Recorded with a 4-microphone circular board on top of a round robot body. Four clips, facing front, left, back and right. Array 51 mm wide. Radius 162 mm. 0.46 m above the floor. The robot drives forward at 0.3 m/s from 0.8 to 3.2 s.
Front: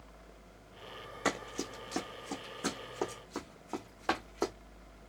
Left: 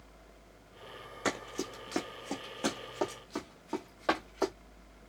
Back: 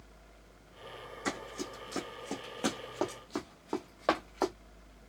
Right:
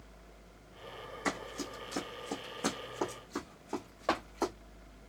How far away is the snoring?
No snoring in this recording.